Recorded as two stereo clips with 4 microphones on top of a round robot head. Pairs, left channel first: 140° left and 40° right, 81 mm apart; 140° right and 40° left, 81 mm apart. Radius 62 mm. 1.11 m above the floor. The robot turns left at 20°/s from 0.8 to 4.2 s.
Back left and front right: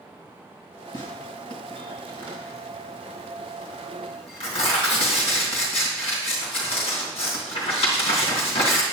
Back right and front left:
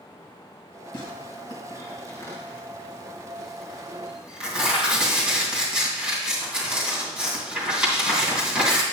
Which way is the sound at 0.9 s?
Straight behind.